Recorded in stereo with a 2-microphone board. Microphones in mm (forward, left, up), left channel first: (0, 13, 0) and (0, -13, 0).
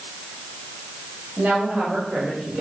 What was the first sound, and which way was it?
A woman speaking, 85° right.